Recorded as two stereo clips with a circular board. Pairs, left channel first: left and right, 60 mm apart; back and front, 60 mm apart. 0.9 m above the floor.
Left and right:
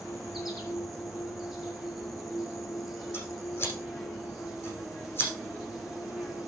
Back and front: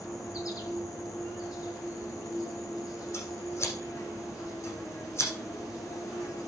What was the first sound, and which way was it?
An insect, 175° right.